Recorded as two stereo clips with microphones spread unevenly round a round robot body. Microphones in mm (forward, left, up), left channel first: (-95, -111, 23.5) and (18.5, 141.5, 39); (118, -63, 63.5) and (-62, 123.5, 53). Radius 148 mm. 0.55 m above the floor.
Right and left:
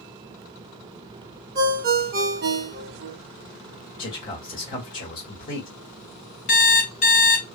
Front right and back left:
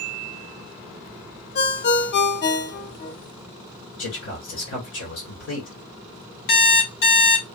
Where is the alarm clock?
60° right, 1.9 m.